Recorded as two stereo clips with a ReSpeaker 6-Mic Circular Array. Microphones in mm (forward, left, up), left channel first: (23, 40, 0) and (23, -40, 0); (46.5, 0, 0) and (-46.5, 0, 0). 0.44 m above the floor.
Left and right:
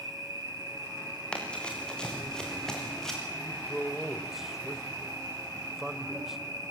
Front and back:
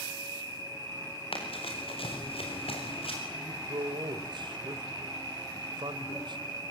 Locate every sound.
0.0 s an insect: 50° right, 7 m
1.3 s running footsteps: 15° left, 6 m; by 3.2 s 5° left, 6.5 m
3.3 s a man speaking: 175° right, 1.9 m